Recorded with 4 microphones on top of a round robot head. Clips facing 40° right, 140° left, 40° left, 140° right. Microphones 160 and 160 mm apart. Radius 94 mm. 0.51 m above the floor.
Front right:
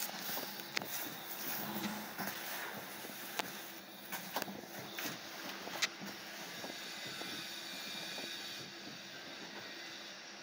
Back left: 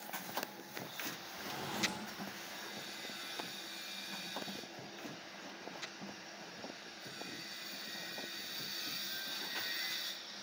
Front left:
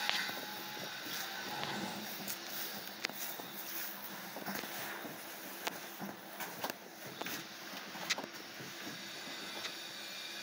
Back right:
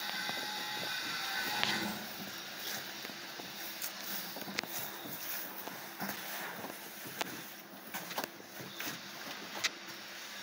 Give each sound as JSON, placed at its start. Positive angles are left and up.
{"t": 1.4, "sound": "a drawer", "azimuth_deg": 120, "distance_m": 0.9}